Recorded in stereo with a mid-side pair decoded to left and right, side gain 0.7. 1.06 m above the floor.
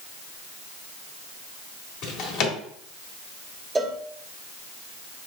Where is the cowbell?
15° right, 0.6 m.